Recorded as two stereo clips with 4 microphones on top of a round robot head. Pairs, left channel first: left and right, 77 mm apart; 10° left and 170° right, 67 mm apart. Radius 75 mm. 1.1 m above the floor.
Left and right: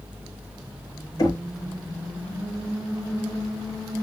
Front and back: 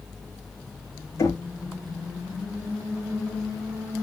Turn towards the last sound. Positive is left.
turn(degrees=50)